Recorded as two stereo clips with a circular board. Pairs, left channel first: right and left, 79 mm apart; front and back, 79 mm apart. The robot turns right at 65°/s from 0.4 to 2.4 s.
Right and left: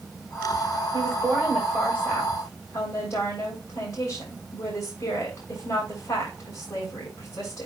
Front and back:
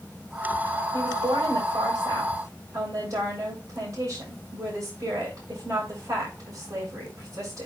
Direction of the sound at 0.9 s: 140° left.